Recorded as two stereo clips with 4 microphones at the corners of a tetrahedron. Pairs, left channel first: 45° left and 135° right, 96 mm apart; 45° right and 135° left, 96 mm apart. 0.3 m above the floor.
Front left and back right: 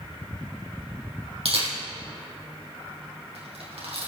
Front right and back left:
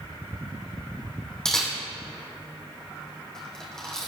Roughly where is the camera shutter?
Behind right.